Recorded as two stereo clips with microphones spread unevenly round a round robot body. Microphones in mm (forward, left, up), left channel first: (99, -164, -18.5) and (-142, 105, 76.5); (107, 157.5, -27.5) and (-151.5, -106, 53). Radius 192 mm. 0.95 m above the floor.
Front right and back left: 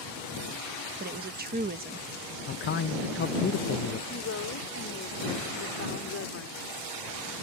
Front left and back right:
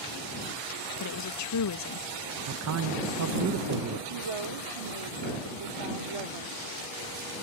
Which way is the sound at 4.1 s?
100° right.